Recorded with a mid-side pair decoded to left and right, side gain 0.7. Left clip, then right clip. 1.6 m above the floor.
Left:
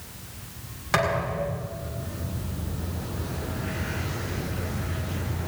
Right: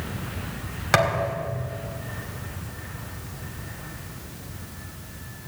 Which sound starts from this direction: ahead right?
A thud, at 0.9 s.